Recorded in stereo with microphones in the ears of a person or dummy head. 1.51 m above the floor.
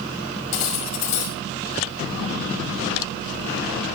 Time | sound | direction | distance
0.5 | cutlery clinking | 40° left (ahead or behind) | 5.5 m